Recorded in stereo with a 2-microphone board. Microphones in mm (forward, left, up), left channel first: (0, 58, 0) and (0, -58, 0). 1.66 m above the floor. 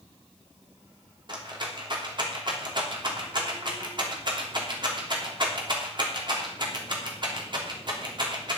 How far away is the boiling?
I don't hear boiling.